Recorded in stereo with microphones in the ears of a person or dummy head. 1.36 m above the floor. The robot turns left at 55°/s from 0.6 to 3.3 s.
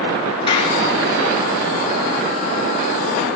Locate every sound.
0.5 s a clap: 30° left (ahead or behind), 3.5 m; by 0.8 s 40° left (ahead or behind), 3.5 m